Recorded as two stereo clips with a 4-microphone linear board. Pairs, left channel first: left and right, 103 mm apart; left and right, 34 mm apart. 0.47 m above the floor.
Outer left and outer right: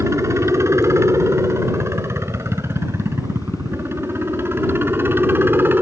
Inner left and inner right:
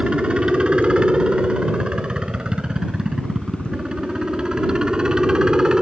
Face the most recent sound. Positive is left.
turn(degrees=-20)  # may be behind; listen again after turning